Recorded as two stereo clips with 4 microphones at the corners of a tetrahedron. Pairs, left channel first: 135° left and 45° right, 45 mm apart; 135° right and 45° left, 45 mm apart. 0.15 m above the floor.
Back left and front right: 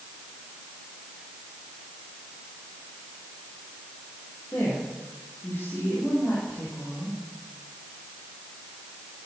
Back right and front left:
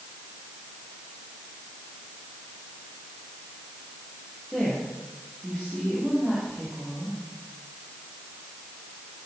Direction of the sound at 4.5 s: 125° left.